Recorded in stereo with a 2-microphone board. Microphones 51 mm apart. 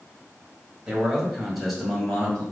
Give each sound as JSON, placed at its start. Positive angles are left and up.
{"t": 0.9, "sound": "a man speaking", "side_deg": -10, "distance_m": 1.6}